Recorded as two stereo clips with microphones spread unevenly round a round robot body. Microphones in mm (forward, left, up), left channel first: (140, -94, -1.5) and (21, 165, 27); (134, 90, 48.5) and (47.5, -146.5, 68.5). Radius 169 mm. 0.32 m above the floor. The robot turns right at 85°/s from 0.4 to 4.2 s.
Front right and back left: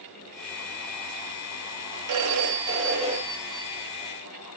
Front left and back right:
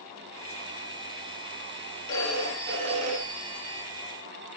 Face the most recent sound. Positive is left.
turn(degrees=-40)